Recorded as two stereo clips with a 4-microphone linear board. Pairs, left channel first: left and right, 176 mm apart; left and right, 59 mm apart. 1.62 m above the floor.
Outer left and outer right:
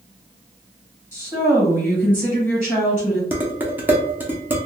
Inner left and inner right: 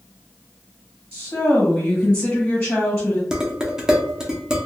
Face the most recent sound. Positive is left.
turn(degrees=-10)  # may be behind; listen again after turning